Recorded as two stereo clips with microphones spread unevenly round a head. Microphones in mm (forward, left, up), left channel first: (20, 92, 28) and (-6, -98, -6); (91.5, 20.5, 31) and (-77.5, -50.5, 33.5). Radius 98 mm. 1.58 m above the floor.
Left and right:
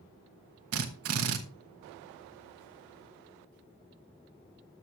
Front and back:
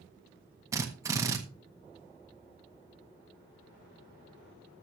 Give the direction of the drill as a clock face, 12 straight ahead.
3 o'clock.